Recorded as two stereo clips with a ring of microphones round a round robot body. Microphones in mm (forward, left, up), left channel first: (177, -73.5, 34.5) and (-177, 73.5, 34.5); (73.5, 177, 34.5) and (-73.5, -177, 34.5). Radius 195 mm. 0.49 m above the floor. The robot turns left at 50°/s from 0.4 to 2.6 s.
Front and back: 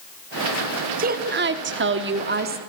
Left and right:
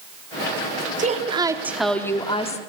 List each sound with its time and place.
1.0 s a woman speaking: 160° right, 1.3 m; by 2.6 s 120° left, 1.3 m